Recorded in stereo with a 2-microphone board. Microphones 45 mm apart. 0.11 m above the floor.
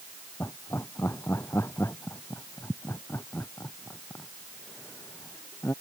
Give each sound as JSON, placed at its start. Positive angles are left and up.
{"t": 0.4, "sound": "laughter", "side_deg": 80}